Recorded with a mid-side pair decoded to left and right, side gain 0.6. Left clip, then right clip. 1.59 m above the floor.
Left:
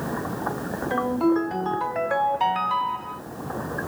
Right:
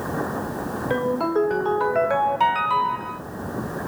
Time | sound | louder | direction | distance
0.9 | a ringtone | even | 55° right | 4.5 m